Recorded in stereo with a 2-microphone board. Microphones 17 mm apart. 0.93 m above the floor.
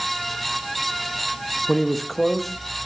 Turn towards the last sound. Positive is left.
turn(degrees=10)  # may be behind; listen again after turning